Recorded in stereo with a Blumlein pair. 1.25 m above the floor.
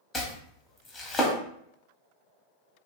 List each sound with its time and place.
0.1 s chopping: 15° left, 0.7 m